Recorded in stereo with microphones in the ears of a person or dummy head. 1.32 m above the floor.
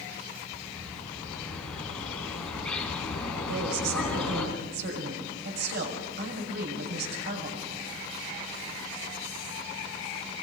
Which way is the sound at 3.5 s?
70° right (ahead or behind).